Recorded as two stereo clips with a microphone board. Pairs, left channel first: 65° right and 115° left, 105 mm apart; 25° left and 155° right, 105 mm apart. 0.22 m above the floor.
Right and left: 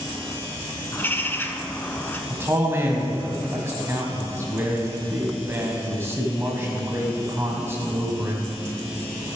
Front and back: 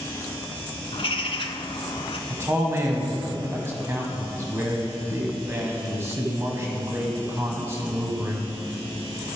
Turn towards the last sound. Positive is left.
turn(degrees=160)